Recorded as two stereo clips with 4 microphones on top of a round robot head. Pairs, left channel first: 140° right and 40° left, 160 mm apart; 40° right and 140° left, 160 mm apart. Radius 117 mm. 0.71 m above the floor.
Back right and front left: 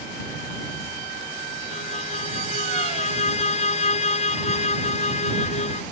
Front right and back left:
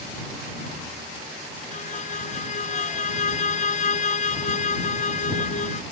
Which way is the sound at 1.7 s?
90° right.